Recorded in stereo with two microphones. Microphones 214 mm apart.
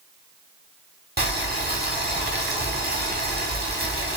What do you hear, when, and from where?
1.2 s boiling: 50° right (ahead or behind), 1.0 m